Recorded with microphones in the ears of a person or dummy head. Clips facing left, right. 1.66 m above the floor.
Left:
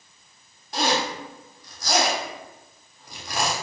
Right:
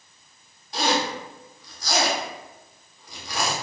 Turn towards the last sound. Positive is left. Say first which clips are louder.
# even
turn(degrees=55)  # may be behind; listen again after turning